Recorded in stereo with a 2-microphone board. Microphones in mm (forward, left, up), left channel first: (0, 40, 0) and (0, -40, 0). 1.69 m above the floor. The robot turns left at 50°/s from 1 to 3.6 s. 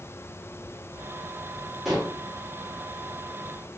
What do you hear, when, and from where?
1.9 s dishes clattering: 5° right (ahead or behind), 0.9 m; by 2.2 s 10° right (ahead or behind), 0.9 m